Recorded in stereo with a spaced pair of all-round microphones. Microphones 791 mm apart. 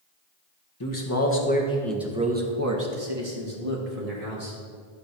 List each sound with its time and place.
0.8 s a man speaking: 25° left (ahead or behind), 1.6 m; by 4.6 s 55° right (ahead or behind), 2 m